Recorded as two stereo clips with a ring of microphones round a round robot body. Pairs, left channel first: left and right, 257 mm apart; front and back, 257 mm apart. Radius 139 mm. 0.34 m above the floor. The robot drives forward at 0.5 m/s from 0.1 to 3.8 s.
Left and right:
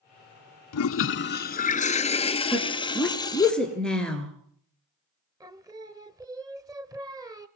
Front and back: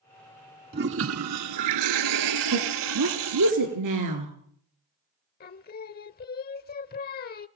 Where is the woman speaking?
175° left, 4.5 m.